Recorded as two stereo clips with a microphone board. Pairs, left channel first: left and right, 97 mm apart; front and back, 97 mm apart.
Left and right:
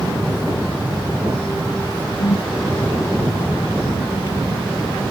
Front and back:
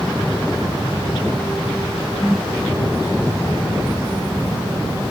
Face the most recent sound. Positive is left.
turn(degrees=90)